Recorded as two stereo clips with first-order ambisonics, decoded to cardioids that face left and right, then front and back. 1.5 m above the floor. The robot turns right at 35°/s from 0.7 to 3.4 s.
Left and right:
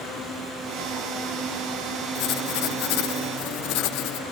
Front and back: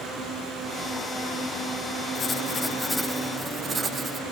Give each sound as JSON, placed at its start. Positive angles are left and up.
{"t": 2.1, "sound": "writing", "azimuth_deg": 60, "distance_m": 1.0}